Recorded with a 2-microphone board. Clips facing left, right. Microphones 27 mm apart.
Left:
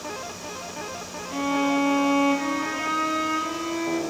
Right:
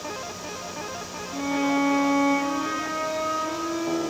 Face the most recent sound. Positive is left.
turn(degrees=60)  # may be behind; listen again after turning